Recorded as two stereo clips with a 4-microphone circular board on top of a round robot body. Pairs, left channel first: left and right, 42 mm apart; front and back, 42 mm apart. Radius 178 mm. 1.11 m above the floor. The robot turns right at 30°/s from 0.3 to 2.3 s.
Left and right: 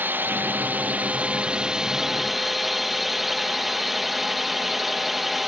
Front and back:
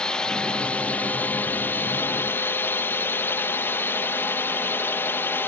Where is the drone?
65° right; by 5.5 s 5° right.